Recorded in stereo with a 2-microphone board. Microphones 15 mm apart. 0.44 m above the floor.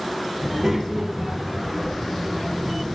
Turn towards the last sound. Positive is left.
turn(degrees=30)  # may be behind; listen again after turning